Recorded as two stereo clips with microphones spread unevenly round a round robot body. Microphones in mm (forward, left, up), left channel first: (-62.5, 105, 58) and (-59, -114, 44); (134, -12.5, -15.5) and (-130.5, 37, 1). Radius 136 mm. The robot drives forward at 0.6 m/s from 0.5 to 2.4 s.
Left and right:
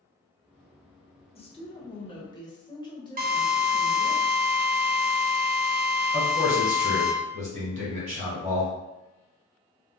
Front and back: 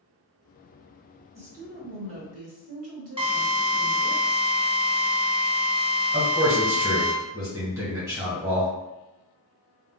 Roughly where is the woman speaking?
Behind left.